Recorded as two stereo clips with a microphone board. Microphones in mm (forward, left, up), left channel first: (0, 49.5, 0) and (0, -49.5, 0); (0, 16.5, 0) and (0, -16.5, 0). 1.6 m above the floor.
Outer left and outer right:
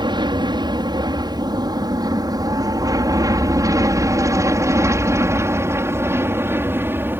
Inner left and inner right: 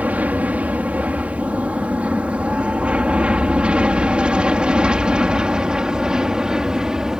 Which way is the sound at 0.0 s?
50° right (ahead or behind).